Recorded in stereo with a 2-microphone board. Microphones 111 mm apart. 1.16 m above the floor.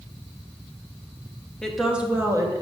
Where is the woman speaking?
5° left (ahead or behind), 0.9 m; by 2.6 s 35° right (ahead or behind), 1.0 m.